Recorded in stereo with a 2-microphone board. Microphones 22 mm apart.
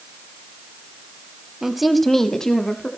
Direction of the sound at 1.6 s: 20° right (ahead or behind).